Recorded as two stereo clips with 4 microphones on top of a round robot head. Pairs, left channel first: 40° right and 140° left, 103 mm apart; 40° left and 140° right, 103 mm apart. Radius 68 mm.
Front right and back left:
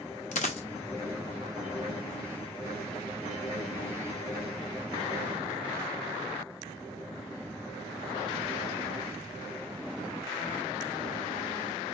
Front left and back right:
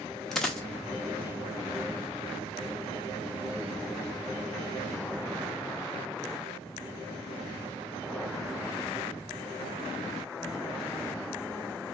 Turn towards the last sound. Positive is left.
turn(degrees=-50)